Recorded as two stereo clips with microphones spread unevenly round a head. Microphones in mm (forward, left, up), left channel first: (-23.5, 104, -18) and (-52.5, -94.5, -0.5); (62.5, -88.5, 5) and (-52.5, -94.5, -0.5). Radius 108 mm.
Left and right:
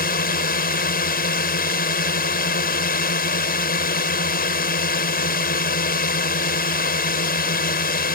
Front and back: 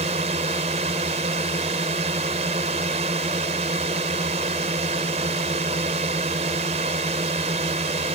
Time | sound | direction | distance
0.0 | a drone | 125° left | ?